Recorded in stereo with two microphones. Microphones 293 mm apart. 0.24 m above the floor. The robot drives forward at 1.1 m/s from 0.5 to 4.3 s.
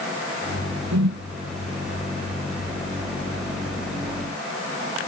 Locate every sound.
0.9 s a whoosh: 80° right